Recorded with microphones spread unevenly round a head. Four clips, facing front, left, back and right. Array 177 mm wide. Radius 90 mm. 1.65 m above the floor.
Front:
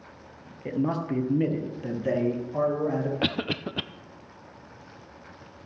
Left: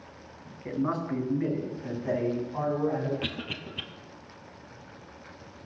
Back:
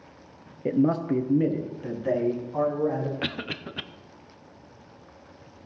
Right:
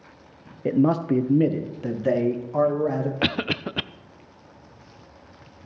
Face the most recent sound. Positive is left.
turn(degrees=-55)